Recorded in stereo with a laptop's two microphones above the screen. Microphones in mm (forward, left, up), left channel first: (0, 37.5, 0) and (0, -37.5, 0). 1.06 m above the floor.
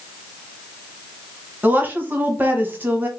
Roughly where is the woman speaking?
Right.